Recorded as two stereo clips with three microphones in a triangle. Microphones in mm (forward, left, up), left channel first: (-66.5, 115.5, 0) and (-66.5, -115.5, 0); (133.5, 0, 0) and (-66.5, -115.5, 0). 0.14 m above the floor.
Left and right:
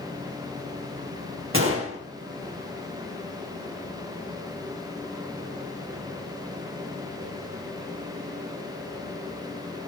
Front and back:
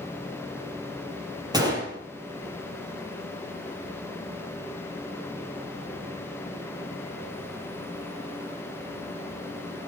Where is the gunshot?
80° right, 3 m.